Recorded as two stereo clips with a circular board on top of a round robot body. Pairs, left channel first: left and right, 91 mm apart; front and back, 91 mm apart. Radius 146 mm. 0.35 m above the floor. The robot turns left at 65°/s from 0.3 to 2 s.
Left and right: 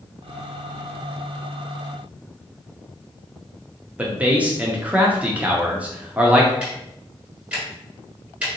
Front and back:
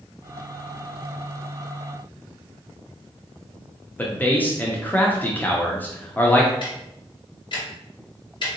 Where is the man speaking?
40° right, 0.8 m.